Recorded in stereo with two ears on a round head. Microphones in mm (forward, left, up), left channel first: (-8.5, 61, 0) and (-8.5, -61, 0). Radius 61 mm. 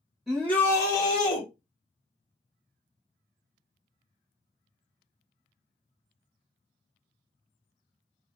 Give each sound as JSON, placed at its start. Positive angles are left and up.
{"t": 0.3, "sound": "a shout", "side_deg": 0, "distance_m": 1.8}